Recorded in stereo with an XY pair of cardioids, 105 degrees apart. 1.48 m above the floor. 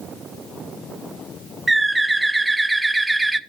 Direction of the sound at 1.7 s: 10° right.